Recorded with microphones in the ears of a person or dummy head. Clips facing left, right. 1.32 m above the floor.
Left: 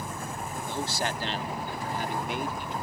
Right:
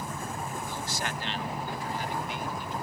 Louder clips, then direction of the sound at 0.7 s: Left 4 dB; 30° left (ahead or behind).